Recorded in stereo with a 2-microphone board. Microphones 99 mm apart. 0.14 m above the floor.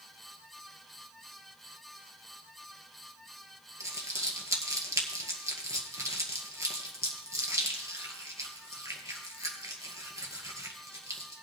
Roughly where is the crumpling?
Right.